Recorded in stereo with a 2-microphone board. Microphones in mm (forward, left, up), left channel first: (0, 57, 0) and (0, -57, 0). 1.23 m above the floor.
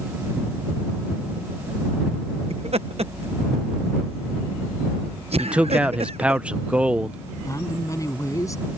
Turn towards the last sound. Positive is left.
turn(degrees=30)  # may be behind; listen again after turning